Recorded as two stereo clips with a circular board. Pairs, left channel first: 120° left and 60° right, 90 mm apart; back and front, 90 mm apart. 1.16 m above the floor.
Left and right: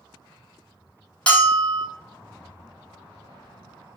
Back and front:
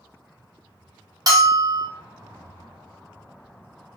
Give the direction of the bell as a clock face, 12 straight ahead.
11 o'clock.